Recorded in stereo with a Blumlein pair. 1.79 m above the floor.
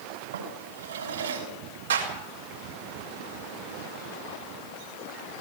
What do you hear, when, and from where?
0.3 s a drawer: 65° right, 6 m
1.9 s a clap: 65° right, 4.5 m